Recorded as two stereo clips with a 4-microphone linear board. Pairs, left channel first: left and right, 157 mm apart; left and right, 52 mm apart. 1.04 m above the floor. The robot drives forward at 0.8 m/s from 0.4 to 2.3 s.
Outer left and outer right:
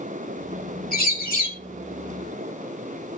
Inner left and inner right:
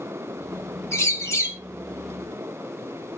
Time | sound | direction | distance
0.9 | a bird | 80° left | 3 m